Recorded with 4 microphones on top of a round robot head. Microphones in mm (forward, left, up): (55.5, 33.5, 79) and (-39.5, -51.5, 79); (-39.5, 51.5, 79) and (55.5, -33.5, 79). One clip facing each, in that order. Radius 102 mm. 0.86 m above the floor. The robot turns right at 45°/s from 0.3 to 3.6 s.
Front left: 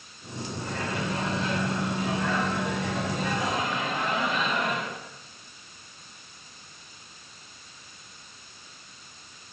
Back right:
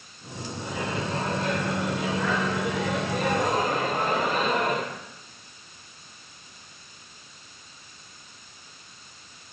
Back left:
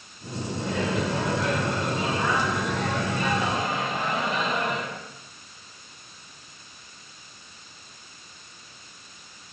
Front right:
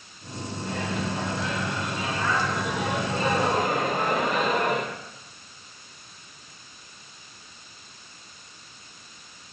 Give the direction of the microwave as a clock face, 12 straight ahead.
7 o'clock.